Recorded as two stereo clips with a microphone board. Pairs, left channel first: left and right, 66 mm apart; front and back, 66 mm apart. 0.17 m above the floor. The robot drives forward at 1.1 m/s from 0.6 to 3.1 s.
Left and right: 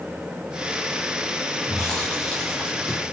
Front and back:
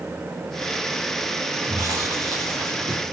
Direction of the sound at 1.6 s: 165° left.